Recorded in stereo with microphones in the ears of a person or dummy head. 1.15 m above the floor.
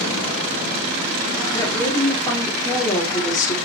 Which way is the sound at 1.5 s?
20° left (ahead or behind).